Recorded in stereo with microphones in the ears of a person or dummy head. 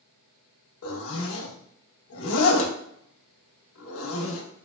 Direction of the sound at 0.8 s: 80° left.